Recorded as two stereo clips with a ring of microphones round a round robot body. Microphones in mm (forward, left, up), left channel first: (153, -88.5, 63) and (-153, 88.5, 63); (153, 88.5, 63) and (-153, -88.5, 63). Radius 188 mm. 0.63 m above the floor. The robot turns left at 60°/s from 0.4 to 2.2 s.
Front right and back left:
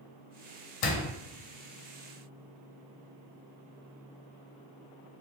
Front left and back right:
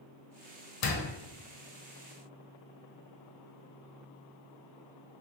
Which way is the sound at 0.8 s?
15° right.